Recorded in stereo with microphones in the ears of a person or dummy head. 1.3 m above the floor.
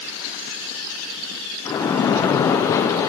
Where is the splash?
20° left (ahead or behind), 0.5 m.